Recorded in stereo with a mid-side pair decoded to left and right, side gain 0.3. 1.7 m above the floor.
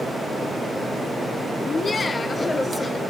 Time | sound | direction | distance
1.6 | laughter | 50° left | 1.4 m